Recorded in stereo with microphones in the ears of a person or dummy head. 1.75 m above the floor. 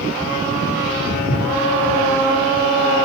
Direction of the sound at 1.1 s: 45° left (ahead or behind).